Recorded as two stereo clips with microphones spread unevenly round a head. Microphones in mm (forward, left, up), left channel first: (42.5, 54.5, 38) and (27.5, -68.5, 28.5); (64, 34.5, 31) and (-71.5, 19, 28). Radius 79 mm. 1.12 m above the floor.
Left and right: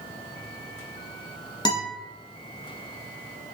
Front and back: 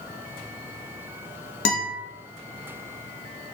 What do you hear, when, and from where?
1.6 s a guitar: 25° left, 1.2 m